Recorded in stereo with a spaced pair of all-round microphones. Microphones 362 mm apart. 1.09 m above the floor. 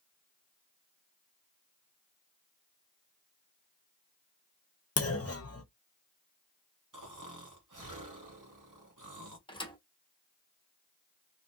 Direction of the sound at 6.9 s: 55° right (ahead or behind).